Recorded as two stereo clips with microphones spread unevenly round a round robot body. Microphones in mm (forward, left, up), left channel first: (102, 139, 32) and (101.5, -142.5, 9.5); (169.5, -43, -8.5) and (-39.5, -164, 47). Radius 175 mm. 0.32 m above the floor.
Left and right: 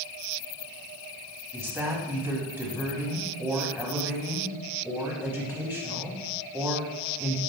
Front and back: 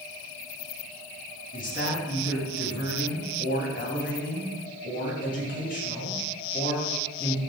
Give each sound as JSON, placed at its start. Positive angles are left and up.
{"t": 1.5, "sound": "a woman speaking", "azimuth_deg": -10, "distance_m": 3.0}